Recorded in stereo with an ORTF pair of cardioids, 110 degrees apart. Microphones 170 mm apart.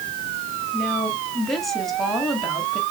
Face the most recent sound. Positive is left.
turn(degrees=0)